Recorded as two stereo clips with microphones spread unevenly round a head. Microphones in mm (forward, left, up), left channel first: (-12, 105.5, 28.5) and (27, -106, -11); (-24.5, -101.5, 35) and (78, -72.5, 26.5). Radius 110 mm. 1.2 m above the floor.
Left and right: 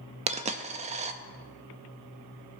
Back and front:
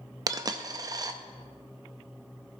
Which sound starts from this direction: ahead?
A dropped coin, at 0.3 s.